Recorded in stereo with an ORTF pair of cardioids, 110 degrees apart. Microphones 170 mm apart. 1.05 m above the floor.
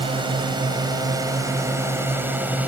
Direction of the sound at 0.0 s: 30° right.